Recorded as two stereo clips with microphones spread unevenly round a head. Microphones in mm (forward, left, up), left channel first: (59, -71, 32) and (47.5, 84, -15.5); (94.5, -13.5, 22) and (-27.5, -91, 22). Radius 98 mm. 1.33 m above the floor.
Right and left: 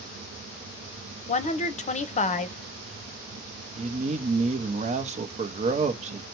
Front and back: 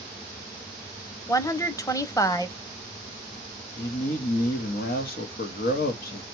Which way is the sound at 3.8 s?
60° left.